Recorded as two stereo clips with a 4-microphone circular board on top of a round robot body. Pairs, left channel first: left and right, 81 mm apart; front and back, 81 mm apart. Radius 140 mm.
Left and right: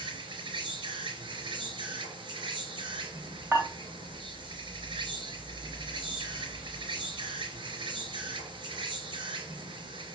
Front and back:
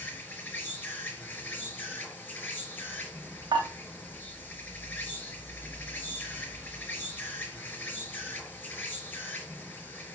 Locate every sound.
0.0 s an insect: 70° right, 4 m
3.5 s dishes clattering: 150° right, 3 m